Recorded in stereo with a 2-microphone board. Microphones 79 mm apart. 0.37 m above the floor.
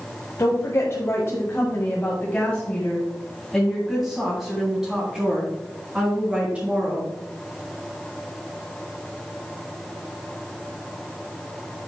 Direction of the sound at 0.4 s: 45° left (ahead or behind).